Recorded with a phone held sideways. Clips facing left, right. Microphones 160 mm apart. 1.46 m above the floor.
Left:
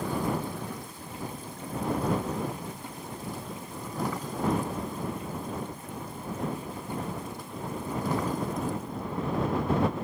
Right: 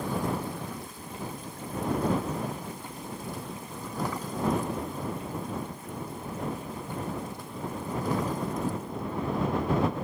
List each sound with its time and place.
Only background noise.